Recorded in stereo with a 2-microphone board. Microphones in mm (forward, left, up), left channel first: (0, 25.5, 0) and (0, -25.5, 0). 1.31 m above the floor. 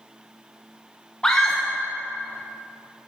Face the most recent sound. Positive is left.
turn(degrees=15)  # may be behind; listen again after turning